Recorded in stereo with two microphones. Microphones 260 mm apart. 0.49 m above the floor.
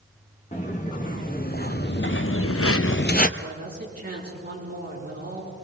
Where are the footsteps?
30° left (ahead or behind), 3 m.